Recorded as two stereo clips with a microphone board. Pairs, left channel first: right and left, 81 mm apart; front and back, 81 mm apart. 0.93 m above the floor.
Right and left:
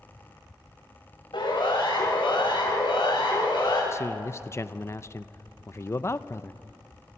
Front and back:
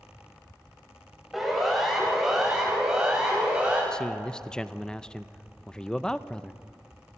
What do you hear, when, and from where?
1.3 s a siren: 90° right, 5.5 m; by 3.8 s 100° right, 6.5 m
3.9 s a man speaking: 75° right, 0.5 m